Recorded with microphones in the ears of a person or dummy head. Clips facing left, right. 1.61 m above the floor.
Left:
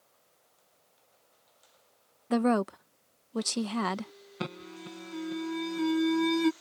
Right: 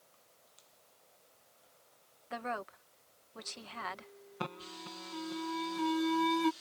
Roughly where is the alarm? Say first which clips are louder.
Left 5 dB; left.